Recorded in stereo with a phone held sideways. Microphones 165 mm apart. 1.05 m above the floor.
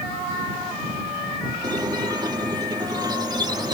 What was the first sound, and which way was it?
A squeak, 25° right (ahead or behind).